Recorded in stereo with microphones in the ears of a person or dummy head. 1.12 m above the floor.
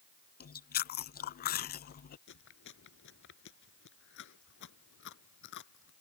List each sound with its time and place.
0.4 s chewing: 45° left (ahead or behind)
2.3 s chewing: 65° left (ahead or behind)